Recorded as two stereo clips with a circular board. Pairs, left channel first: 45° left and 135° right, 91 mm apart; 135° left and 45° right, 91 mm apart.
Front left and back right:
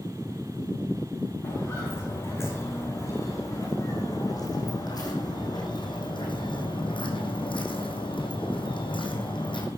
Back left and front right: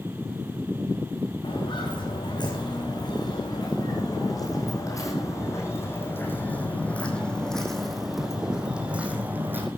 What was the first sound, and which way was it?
Footsteps, 105° left.